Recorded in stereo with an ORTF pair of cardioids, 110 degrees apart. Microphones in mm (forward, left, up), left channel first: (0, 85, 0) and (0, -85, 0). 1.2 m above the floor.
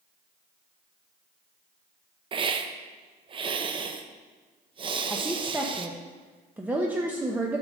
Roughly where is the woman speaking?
Ahead.